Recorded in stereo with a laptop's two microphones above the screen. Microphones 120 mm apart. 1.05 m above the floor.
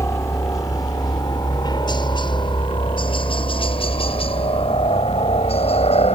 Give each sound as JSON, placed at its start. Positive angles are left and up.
{"t": 0.0, "sound": "a helicopter", "side_deg": 25}